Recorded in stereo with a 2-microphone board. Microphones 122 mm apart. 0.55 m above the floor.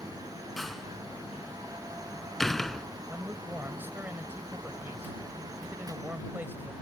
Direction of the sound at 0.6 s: Centre (ahead or behind).